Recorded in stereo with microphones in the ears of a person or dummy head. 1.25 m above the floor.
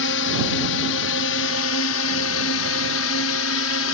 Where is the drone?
65° left (ahead or behind).